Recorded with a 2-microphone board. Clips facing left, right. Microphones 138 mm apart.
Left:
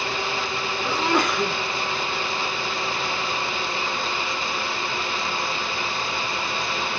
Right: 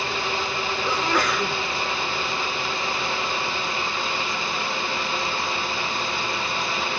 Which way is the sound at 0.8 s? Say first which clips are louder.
Left 2 dB; 25° left (ahead or behind).